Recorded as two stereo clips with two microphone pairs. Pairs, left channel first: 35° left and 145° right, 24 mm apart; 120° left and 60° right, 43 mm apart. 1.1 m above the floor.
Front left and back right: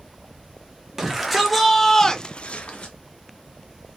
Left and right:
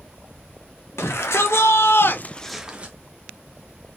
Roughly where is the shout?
Behind left.